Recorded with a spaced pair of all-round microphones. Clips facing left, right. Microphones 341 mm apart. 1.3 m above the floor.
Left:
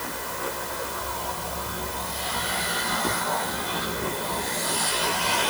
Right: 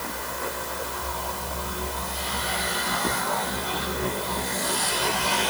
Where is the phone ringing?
I don't hear a phone ringing.